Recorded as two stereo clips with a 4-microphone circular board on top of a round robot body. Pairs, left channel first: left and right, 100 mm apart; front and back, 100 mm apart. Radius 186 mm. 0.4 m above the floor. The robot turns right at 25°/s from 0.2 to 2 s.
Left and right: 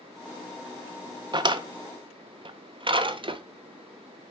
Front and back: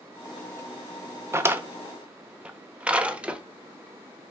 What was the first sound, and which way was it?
A drawer, 120° right.